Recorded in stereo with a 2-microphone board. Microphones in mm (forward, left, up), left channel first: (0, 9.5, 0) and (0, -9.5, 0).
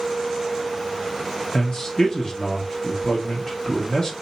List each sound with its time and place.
1.5 s a man speaking: 40° left (ahead or behind), 1.4 m